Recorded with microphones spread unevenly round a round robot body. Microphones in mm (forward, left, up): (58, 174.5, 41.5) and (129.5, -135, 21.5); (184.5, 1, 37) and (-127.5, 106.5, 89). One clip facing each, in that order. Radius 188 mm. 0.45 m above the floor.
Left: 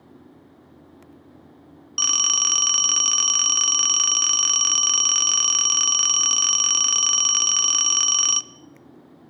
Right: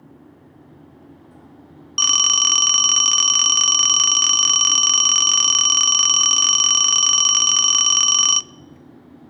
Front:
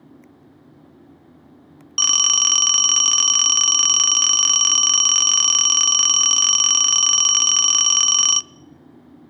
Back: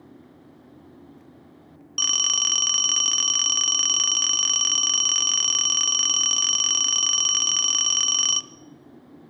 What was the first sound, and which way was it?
A phone ringing, 5° right.